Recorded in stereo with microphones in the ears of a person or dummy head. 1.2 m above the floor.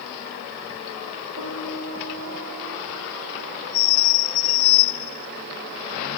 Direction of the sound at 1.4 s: 80° right.